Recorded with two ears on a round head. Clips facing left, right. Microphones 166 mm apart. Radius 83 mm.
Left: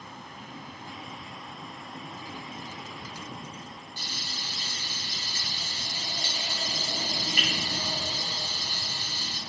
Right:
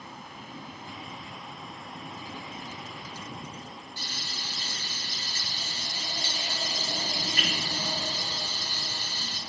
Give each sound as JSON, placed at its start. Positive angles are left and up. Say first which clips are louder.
{"t": 4.0, "sound": "frying", "louder": "even", "side_deg": 15, "distance_m": 8.0}